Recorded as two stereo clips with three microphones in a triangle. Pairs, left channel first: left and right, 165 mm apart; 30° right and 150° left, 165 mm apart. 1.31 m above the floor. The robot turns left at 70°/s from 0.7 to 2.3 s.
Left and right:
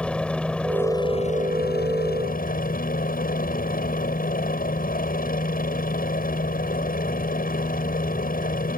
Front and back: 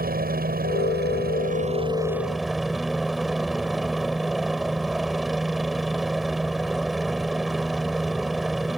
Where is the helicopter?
175° left; by 8.8 s 60° left.